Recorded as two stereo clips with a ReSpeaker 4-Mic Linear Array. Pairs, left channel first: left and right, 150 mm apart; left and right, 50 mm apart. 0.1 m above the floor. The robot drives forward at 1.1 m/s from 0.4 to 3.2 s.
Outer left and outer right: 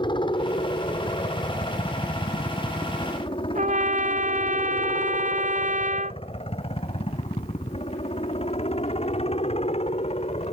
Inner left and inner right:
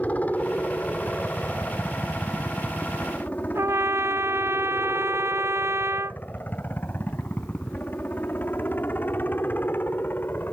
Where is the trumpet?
55° right (ahead or behind).